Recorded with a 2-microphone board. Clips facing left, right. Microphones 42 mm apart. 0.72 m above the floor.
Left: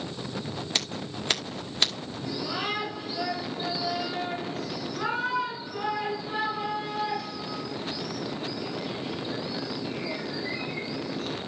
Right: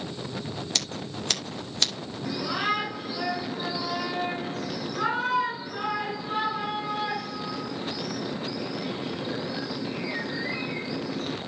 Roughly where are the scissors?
Centre.